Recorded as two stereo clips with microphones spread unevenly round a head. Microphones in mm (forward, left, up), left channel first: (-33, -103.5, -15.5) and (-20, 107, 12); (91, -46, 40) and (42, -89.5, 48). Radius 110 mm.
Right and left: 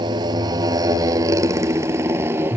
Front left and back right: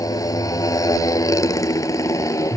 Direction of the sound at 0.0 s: 15° left.